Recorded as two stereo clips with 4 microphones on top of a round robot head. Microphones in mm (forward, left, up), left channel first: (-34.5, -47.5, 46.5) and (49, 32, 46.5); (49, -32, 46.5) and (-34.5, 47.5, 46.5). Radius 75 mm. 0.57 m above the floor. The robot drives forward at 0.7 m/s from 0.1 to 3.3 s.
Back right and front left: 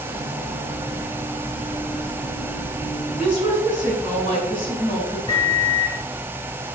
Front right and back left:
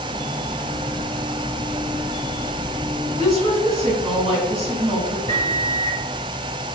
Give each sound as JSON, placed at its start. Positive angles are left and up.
{"t": 3.2, "sound": "a woman speaking", "azimuth_deg": 175, "distance_m": 4.0}
{"t": 5.3, "sound": "a microwave", "azimuth_deg": 165, "distance_m": 2.0}